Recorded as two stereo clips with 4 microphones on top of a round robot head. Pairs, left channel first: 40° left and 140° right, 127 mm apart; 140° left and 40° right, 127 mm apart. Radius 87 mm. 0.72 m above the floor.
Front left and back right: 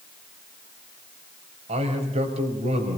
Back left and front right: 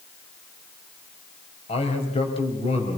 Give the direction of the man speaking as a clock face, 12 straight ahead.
6 o'clock.